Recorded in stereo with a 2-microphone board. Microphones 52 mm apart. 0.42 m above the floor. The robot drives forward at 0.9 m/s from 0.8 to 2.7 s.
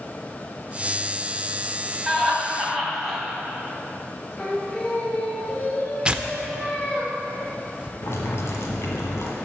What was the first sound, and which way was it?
Laughter, 5° right (ahead or behind).